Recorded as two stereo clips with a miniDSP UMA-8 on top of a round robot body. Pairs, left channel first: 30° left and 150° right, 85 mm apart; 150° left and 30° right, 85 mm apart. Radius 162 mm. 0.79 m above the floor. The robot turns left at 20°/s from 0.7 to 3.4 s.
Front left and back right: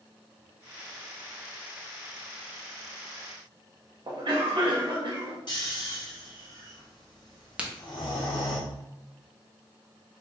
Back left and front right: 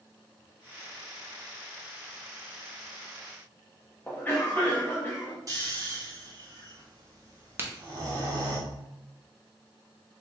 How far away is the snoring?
About 2.0 m.